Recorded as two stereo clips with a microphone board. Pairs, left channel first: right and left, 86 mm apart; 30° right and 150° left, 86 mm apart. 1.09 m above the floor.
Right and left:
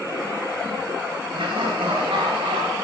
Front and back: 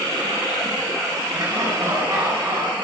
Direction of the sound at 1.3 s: 90° left.